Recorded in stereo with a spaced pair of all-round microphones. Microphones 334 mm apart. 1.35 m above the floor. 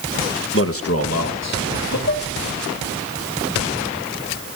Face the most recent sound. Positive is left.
turn(degrees=35)  # may be behind; listen again after turning